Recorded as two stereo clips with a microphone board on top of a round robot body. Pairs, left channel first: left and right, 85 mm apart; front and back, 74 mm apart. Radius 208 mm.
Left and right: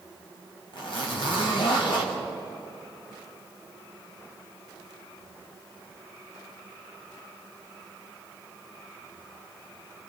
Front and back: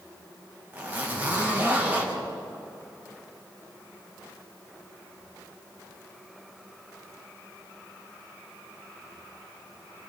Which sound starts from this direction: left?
A zipper, at 0.7 s.